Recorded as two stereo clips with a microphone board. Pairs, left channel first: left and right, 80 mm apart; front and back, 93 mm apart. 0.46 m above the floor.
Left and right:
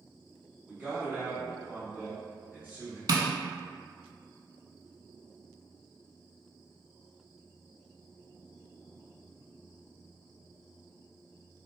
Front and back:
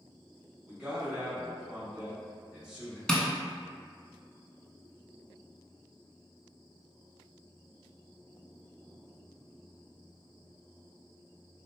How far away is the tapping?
About 0.5 m.